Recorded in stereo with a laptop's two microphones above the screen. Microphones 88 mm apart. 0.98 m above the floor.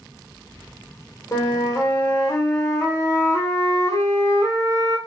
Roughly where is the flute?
Left.